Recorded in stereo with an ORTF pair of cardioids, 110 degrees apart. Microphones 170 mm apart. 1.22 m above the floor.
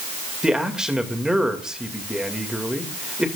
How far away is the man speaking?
About 2 m.